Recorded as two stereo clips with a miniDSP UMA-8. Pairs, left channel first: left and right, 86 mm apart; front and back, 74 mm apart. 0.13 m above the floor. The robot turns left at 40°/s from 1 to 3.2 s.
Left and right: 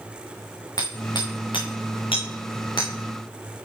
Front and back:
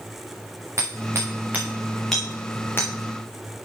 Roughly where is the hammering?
Behind left.